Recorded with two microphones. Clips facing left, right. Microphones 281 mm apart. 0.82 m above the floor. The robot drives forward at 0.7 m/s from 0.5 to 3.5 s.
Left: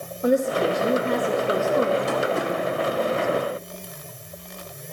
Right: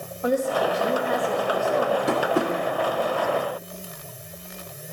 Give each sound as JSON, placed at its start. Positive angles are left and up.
{"t": 0.2, "sound": "a woman speaking", "side_deg": 25, "distance_m": 1.5}
{"t": 2.1, "sound": "tapping", "side_deg": -65, "distance_m": 1.9}